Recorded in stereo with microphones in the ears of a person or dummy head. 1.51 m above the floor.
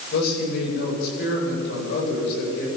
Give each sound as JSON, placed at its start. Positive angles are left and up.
{"t": 0.1, "sound": "a man speaking", "side_deg": 55, "distance_m": 8.0}